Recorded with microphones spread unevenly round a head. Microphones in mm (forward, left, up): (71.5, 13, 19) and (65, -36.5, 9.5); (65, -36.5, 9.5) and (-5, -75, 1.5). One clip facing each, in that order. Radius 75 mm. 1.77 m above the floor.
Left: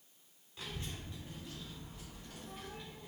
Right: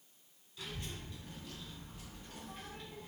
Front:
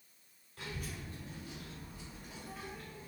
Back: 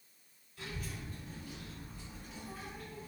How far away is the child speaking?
About 1.3 m.